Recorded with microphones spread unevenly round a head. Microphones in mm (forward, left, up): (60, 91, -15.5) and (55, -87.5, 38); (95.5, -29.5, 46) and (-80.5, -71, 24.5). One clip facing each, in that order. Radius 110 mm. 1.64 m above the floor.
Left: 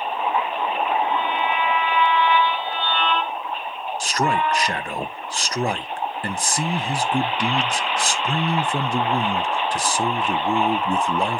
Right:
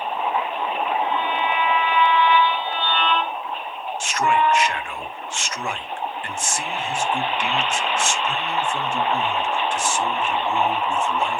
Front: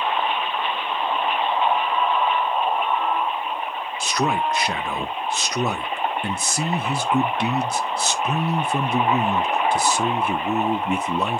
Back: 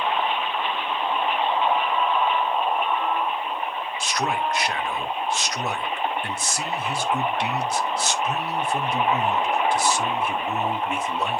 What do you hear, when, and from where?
4.0 s a man speaking: 30° left, 1.0 m